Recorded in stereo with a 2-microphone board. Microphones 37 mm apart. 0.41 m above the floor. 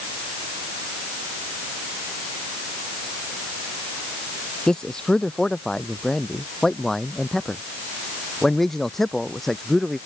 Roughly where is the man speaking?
Left.